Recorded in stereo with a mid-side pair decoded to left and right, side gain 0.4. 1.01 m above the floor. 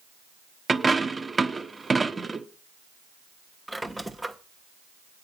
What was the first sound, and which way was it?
A dropped coin, 30° right.